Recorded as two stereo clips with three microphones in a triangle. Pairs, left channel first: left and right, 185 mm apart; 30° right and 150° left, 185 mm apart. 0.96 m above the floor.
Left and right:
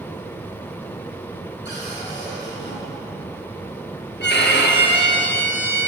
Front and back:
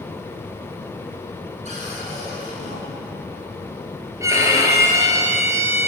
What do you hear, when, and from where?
1.6 s a cupboard door: 100° left, 8.5 m
4.2 s a violin: 75° left, 3.5 m